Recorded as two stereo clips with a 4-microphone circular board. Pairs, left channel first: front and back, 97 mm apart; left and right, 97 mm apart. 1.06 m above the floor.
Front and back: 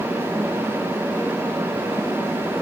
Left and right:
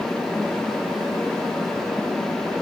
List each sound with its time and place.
Only background noise.